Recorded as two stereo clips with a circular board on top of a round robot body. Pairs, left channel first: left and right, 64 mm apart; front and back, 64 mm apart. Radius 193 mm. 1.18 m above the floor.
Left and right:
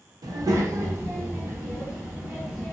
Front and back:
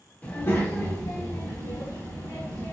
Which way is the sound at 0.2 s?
70° right.